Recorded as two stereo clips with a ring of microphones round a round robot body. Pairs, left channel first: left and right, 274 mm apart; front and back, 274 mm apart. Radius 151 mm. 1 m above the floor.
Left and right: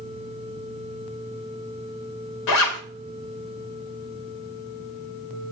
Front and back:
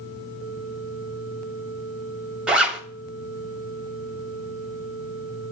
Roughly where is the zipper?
Left.